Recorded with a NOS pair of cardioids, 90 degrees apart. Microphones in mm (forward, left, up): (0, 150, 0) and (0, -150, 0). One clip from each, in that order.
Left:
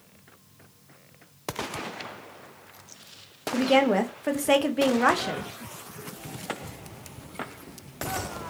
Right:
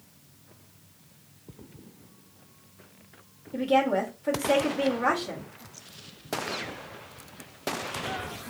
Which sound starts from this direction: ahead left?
A woman speaking, at 3.5 s.